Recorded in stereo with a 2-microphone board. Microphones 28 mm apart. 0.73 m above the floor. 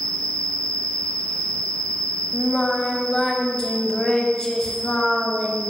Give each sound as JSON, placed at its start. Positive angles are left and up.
{"t": 0.0, "sound": "an insect", "side_deg": 55, "distance_m": 1.5}
{"t": 2.3, "sound": "singing", "side_deg": 25, "distance_m": 0.5}